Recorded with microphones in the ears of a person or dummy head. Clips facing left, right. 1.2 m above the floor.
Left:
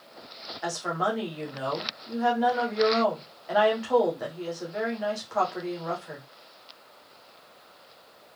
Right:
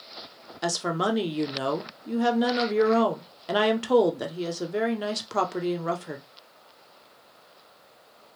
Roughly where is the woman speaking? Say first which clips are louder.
Right 3 dB; right.